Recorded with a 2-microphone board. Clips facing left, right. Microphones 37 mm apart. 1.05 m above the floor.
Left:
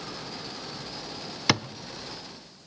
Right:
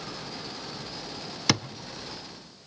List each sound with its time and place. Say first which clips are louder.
1.5 s a thud: left 1 dB; 10° left (ahead or behind), 0.8 m